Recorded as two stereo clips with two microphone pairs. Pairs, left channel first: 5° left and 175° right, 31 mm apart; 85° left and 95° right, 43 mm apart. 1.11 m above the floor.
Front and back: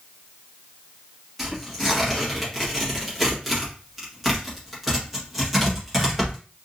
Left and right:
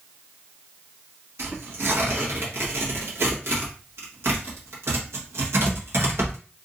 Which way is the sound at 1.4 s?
85° right.